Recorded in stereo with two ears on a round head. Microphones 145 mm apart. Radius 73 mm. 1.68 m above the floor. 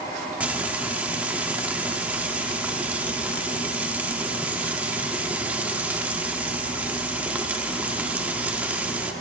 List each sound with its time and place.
0.4 s frying: 10° right (ahead or behind), 0.7 m